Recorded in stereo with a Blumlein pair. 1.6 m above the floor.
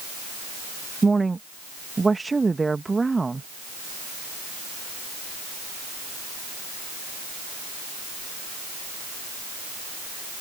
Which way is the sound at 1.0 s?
10° right.